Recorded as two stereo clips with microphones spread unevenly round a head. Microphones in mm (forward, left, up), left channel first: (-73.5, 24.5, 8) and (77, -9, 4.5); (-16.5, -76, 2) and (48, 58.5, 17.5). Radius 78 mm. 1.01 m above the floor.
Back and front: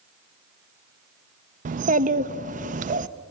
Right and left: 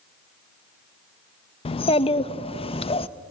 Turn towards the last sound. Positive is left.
turn(degrees=-60)